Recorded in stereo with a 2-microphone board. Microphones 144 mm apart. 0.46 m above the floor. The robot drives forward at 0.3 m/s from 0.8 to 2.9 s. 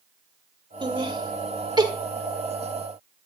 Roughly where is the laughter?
Right.